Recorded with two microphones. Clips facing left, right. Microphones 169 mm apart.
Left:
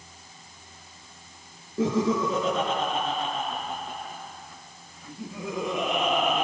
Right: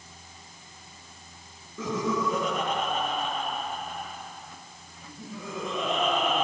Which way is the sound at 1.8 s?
30° left (ahead or behind).